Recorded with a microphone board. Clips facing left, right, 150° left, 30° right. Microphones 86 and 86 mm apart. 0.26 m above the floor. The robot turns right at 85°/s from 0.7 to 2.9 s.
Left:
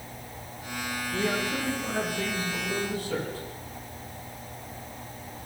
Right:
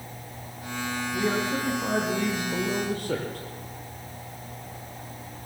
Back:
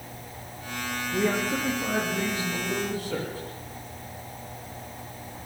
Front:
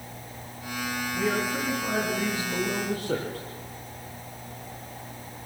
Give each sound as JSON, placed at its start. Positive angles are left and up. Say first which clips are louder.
{"t": 1.1, "sound": "a man speaking", "louder": "right 2 dB, back 2 dB", "azimuth_deg": 155, "distance_m": 9.5}